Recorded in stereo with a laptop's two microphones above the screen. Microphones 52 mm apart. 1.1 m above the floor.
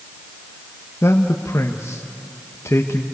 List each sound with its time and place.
1.0 s a man speaking: 60° left (ahead or behind), 1.1 m